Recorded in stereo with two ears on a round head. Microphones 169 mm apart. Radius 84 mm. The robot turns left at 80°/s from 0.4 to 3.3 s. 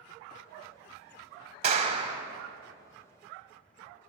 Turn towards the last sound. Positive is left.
turn(degrees=135)